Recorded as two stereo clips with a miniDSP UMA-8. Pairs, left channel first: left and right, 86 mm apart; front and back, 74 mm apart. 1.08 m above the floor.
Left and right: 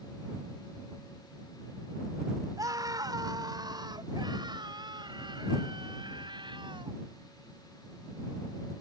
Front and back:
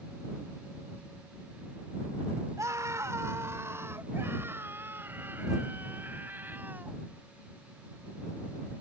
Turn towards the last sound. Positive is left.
turn(degrees=-115)